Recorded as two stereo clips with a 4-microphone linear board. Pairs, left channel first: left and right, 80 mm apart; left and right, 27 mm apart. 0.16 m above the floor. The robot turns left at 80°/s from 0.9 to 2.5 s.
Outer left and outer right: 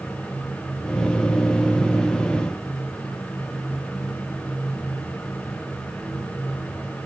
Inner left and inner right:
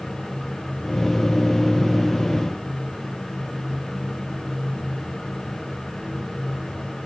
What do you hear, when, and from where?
Only background noise.